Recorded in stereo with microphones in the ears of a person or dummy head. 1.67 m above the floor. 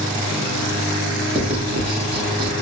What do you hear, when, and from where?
1.4 s writing: 30° right (ahead or behind), 0.9 m